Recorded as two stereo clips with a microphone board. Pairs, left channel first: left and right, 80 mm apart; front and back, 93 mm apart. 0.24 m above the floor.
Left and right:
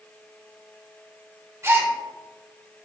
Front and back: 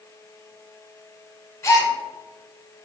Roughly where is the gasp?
Ahead right.